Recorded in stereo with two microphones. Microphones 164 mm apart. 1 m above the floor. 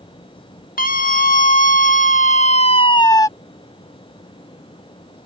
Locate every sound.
0.8 s a scream: 65° left (ahead or behind); by 3.3 s 20° left (ahead or behind)